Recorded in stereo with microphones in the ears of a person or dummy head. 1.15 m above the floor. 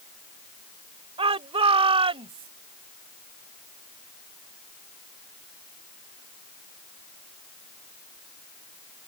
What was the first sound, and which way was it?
A shout, 25° right (ahead or behind).